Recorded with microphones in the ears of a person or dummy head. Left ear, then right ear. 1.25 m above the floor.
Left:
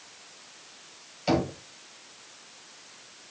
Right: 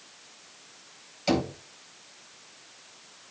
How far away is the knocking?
About 4.5 m.